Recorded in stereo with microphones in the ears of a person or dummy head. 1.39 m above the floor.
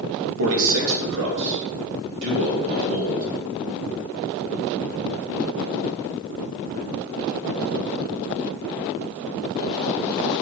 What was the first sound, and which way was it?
A man speaking, 75° right (ahead or behind).